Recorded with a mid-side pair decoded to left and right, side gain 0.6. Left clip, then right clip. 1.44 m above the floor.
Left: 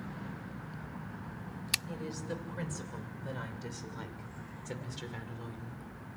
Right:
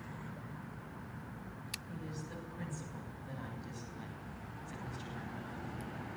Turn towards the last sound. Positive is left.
turn(degrees=80)